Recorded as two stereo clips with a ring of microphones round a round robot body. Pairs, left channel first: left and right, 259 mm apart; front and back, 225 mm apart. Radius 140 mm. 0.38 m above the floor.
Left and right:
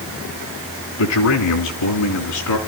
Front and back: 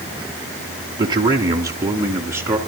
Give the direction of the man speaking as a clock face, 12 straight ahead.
8 o'clock.